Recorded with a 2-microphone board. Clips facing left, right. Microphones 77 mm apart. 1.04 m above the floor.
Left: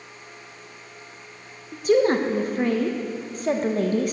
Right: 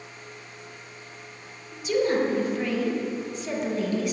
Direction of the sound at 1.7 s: 45° left (ahead or behind).